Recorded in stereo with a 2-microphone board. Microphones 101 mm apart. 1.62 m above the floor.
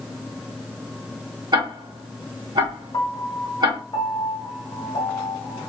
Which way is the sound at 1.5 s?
45° right (ahead or behind).